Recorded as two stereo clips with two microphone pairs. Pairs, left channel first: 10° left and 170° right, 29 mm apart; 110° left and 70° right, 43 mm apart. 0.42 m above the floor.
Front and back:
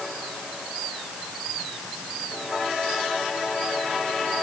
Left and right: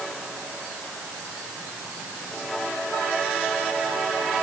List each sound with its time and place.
Only background noise.